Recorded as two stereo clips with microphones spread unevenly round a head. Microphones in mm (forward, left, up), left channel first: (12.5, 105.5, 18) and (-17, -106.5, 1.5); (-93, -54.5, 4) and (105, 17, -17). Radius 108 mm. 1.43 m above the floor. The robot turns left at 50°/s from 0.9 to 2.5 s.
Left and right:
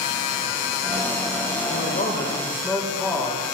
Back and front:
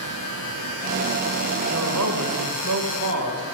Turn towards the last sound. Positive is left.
turn(degrees=0)